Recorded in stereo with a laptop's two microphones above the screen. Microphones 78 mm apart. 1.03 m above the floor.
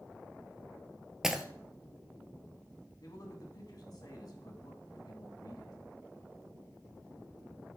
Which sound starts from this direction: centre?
Breaking glass, at 1.2 s.